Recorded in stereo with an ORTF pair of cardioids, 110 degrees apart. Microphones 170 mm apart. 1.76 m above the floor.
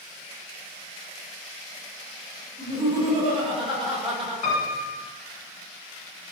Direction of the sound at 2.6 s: 30° right.